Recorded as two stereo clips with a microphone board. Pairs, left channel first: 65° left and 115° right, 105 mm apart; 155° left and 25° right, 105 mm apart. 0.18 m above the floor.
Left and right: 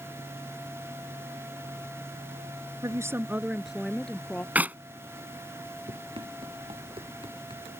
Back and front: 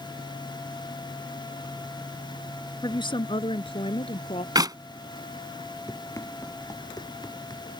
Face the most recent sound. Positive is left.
turn(degrees=-150)